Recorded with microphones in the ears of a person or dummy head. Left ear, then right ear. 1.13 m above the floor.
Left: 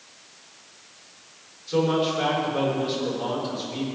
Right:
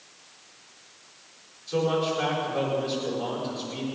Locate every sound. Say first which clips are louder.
1.7 s a man speaking: left 2 dB; 5° right (ahead or behind), 4.5 m